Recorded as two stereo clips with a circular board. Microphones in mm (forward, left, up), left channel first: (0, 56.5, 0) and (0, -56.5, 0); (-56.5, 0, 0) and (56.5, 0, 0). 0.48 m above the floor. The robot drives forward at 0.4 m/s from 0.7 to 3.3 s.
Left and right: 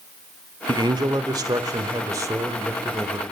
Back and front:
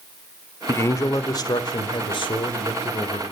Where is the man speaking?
120° right, 1.1 m; by 3.2 s 155° right, 1.8 m.